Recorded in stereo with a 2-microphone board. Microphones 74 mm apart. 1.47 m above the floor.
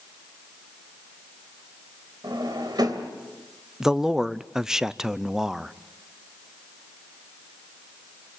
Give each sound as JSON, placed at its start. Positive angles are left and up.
{"t": 2.2, "sound": "a drawer", "side_deg": -65, "distance_m": 2.5}
{"t": 3.8, "sound": "a man speaking", "side_deg": -10, "distance_m": 0.5}